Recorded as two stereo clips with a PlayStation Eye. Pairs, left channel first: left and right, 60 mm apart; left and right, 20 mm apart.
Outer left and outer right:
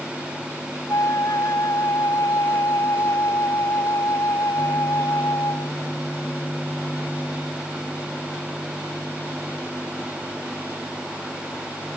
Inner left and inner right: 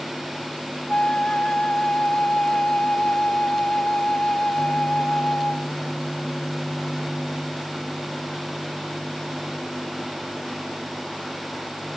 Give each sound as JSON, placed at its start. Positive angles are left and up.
{"t": 0.9, "sound": "a flute", "side_deg": 70}